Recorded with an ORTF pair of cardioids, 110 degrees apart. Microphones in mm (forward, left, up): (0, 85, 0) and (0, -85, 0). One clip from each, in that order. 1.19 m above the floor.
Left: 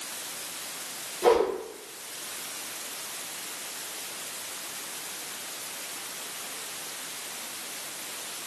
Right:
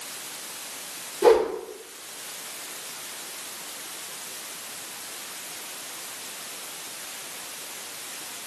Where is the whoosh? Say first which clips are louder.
Right 4 dB; 50° right, 1.7 m.